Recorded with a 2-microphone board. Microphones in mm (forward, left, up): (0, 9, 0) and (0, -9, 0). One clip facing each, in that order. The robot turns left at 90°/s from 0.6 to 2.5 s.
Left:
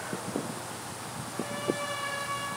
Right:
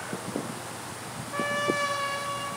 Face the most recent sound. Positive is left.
turn(degrees=175)